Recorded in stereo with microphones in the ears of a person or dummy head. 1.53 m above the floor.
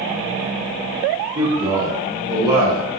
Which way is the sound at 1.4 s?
20° right (ahead or behind).